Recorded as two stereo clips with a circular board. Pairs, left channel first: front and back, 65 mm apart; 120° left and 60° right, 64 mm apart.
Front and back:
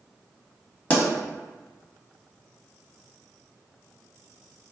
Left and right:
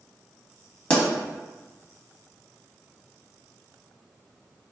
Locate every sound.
0.9 s a pop: 55° left, 1.2 m